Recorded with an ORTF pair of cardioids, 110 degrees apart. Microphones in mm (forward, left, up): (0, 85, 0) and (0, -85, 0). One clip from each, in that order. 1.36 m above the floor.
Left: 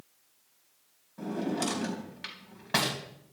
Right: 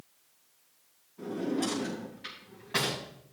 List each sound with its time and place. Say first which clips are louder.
1.2 s a drawer: even; 65° left, 3.5 m